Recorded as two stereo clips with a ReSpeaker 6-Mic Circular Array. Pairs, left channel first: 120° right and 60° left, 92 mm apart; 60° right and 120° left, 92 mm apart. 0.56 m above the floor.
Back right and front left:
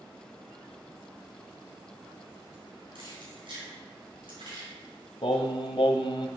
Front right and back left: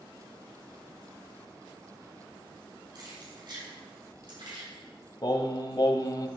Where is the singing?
100° right, 1.0 m.